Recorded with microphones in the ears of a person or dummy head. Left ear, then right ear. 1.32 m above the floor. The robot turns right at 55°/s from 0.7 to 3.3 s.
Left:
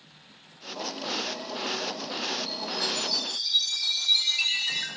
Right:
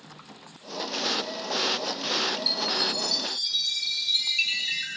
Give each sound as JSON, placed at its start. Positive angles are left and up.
{"t": 2.5, "sound": "a chime", "azimuth_deg": -40, "distance_m": 9.5}